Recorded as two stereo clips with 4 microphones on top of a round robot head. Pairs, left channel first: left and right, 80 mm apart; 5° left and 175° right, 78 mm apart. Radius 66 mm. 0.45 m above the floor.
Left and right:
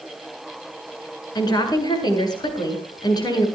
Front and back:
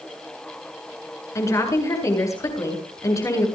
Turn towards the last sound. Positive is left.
turn(degrees=55)